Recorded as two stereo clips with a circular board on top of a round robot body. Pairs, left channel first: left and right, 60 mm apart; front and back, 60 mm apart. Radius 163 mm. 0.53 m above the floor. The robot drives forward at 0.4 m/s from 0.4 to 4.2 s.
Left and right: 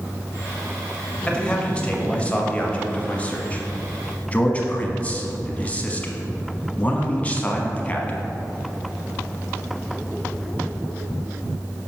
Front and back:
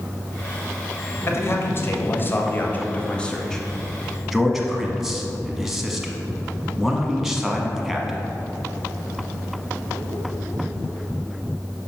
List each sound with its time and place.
1.3 s a man speaking: 20° left, 1.6 m; by 8.3 s 105° left, 1.2 m